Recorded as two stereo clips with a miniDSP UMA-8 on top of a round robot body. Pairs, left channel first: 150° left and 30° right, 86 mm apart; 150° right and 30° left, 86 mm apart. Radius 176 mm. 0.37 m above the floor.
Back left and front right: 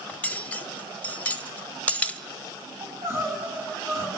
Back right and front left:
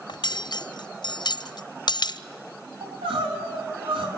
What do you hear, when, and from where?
0.1 s cutlery clinking: 140° right, 1.1 m
2.8 s crying: 25° left, 5 m